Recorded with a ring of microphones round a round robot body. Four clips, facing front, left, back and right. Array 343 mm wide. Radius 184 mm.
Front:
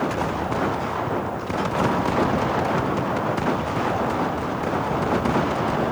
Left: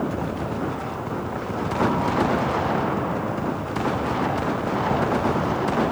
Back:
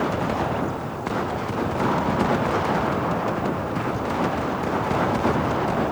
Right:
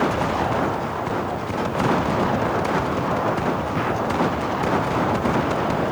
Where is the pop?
I don't hear a pop.